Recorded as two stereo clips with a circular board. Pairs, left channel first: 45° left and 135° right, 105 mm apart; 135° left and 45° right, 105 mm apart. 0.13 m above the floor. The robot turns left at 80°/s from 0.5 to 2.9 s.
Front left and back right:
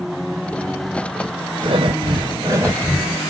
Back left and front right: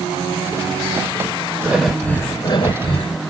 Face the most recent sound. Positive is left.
turn(degrees=145)